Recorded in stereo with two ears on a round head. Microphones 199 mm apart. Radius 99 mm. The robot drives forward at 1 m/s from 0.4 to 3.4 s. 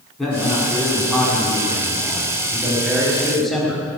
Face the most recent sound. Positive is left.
turn(degrees=0)  # may be behind; listen again after turning